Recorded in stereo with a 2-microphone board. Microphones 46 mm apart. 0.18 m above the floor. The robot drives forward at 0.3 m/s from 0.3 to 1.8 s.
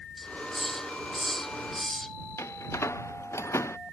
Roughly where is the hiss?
Centre.